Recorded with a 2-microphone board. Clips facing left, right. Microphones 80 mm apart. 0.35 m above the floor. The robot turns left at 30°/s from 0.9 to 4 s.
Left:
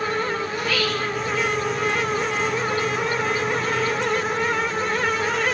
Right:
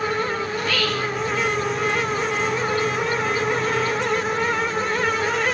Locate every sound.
0.5 s whispering: 10° left (ahead or behind), 4 m; by 1.1 s centre (ahead or behind), 4 m